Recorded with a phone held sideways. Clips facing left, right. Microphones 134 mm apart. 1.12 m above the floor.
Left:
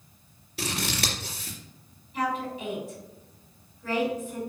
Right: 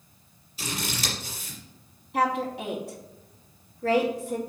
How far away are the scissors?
About 3 m.